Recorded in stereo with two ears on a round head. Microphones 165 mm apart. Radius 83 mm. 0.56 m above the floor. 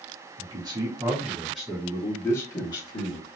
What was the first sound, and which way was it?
A man speaking, 25° right (ahead or behind).